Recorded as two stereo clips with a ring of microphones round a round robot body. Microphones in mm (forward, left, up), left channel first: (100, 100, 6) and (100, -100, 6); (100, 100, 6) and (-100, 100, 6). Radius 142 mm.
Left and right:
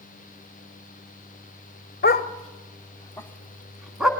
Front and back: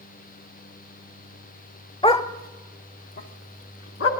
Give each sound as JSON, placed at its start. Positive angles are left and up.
{"t": 2.0, "sound": "a dog barking", "azimuth_deg": 60, "distance_m": 1.2}